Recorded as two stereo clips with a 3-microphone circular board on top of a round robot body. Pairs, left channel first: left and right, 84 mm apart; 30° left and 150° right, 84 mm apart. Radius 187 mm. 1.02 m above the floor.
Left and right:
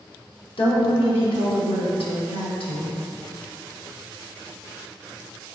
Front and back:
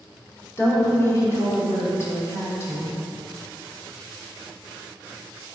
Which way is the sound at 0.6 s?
90° left.